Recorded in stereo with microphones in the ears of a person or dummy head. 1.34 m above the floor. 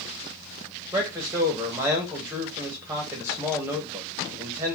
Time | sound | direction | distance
0.9 | a man speaking | 10° right (ahead or behind) | 1.0 m